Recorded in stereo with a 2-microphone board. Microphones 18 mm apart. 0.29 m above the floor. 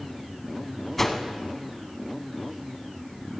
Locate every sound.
1.0 s a whoosh: 15° left (ahead or behind), 0.9 m